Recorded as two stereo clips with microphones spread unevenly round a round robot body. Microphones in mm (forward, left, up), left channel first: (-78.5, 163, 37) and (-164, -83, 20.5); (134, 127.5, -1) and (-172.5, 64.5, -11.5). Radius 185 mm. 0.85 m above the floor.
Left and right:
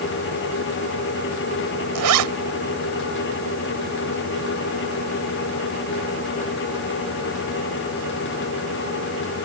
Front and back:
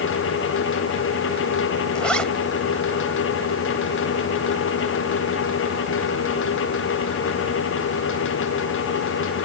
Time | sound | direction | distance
1.9 | a zipper | 75° right | ?